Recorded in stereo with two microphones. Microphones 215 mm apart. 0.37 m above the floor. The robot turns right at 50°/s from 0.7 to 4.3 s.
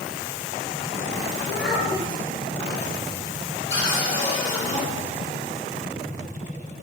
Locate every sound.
1.4 s a child speaking: 10° right, 1.3 m; by 2.2 s 25° left, 1.3 m
3.7 s a cupboard door: 50° left (ahead or behind), 1.1 m; by 4.8 s 30° left (ahead or behind), 1.1 m